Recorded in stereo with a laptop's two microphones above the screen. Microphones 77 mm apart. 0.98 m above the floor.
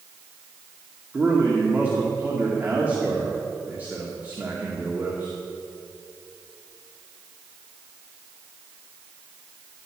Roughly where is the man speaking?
Right.